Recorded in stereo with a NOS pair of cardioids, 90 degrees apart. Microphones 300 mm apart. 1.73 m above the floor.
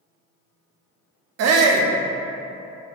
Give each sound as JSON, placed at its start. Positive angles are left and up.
{"t": 1.4, "sound": "a shout", "azimuth_deg": -55, "distance_m": 0.5}